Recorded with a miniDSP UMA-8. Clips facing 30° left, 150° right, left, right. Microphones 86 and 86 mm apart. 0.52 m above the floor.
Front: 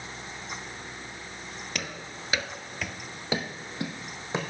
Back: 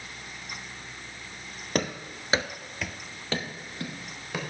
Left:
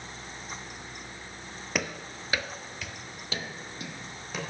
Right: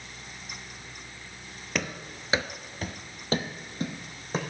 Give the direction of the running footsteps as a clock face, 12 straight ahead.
6 o'clock.